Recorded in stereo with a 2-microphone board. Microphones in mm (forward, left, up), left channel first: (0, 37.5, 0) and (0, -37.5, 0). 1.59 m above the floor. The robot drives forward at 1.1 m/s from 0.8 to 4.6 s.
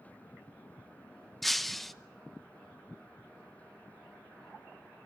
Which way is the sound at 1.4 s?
Centre (ahead or behind).